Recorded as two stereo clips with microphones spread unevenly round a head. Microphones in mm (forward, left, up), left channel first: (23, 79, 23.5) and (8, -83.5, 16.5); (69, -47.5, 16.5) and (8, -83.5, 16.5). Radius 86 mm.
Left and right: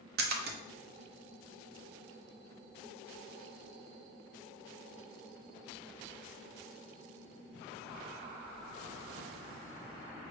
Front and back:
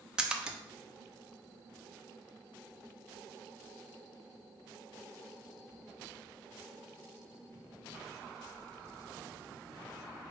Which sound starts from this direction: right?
A splash, at 0.2 s.